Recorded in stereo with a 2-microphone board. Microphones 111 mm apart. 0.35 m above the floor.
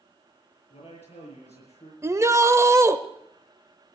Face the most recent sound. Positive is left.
turn(degrees=-25)  # may be behind; listen again after turning